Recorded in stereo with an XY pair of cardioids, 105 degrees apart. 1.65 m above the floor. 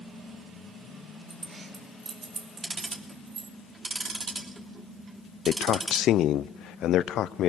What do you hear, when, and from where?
1.3 s keys jangling: 35° right, 3 m; by 3.5 s 60° right, 3 m
2.6 s ticking: 35° right, 3 m
5.5 s a man speaking: 65° left, 0.7 m